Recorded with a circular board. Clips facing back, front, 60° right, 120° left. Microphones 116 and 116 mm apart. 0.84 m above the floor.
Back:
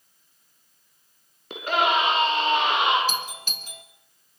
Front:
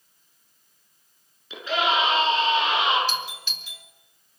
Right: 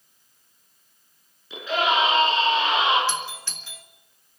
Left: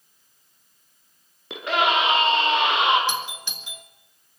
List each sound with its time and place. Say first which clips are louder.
1.5 s a scream: back 2 dB, left 1 dB; 145° left, 8.5 m; by 3.0 s 150° left, 9 m
3.1 s a doorbell: even, left 1 dB; 175° right, 1.5 m